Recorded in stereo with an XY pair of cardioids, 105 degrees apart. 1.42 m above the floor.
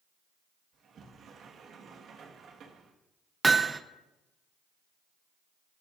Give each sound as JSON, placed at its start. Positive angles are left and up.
{"t": 0.7, "sound": "a sliding door", "azimuth_deg": -60, "distance_m": 1.7}
{"t": 3.4, "sound": "hammering", "azimuth_deg": -20, "distance_m": 0.7}